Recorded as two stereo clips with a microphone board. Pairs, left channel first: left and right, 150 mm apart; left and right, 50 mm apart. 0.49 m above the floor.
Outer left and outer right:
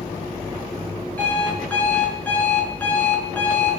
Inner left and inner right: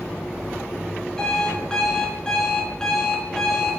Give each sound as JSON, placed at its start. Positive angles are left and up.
{"t": 1.2, "sound": "an alarm clock", "side_deg": 10, "distance_m": 3.5}